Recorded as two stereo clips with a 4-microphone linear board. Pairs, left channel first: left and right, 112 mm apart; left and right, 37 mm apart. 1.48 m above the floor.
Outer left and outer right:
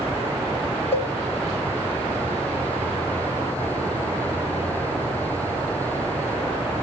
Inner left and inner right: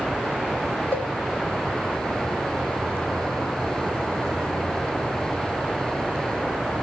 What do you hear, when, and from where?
0.9 s a cowbell: 60° left (ahead or behind), 2 m